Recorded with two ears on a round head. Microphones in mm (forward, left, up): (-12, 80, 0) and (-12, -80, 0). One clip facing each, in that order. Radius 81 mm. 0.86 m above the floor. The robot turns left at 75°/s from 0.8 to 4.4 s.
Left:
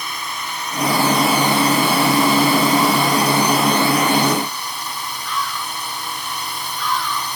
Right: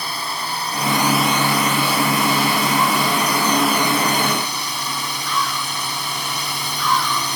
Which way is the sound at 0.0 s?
145° right.